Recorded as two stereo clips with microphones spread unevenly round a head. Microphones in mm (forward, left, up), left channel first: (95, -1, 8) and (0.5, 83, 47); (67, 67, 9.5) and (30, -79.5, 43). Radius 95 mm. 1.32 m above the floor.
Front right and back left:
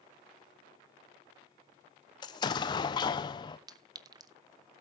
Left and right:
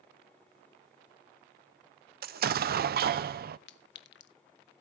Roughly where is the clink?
Left.